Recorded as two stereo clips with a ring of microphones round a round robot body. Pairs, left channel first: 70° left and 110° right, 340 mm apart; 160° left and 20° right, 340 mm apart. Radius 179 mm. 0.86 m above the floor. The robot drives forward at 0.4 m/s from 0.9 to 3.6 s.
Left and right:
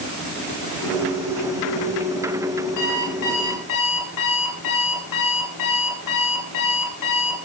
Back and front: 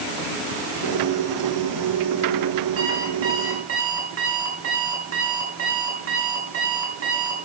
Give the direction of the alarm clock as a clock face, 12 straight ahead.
11 o'clock.